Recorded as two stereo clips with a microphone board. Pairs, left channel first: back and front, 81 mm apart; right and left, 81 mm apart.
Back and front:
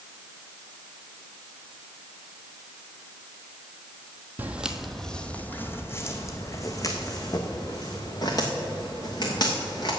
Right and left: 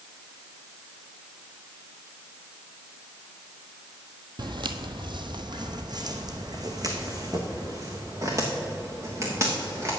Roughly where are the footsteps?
Left.